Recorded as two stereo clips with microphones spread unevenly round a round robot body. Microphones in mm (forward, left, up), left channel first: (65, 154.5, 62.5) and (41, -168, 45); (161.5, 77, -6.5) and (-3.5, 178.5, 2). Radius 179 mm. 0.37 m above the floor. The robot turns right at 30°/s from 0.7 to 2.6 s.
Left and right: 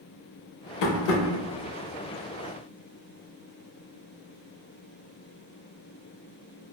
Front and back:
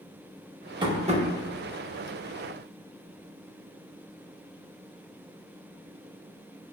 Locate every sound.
0.8 s tapping: 80° left, 0.8 m; by 1.2 s 95° left, 0.8 m